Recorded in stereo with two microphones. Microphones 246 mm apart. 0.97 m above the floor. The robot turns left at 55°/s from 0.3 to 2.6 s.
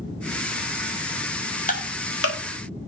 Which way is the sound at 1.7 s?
30° left (ahead or behind).